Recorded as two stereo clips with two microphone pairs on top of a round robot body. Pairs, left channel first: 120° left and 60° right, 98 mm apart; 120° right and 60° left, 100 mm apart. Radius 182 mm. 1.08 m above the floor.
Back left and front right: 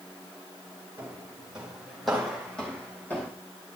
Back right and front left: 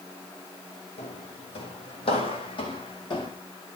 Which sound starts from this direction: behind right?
Footsteps, at 1.0 s.